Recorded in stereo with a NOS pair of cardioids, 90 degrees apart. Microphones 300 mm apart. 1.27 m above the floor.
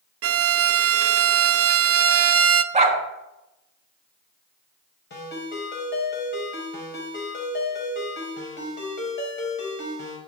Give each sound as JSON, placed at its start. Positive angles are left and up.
{"t": 0.2, "sound": "a violin", "azimuth_deg": -50, "distance_m": 0.7}
{"t": 2.7, "sound": "a dog barking", "azimuth_deg": -20, "distance_m": 3.0}
{"t": 5.1, "sound": "a ringtone", "azimuth_deg": 35, "distance_m": 5.0}